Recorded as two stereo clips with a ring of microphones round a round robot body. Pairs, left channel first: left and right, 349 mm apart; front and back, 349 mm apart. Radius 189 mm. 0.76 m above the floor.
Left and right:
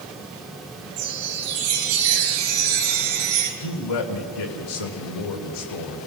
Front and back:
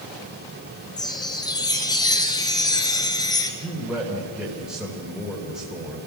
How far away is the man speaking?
About 3 m.